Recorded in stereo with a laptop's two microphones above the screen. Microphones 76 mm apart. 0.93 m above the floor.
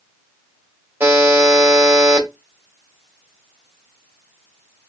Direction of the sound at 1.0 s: 30° right (ahead or behind).